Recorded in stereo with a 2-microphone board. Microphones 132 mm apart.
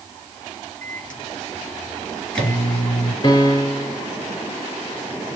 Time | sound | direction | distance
0.8 | a microwave | 5° left (ahead or behind) | 1.5 m
3.2 | a piano | 35° left (ahead or behind) | 0.6 m